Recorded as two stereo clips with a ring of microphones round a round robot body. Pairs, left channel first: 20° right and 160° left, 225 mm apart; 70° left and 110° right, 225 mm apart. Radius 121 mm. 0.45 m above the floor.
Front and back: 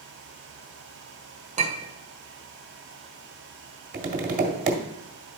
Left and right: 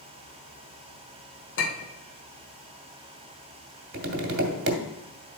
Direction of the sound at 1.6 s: 100° left.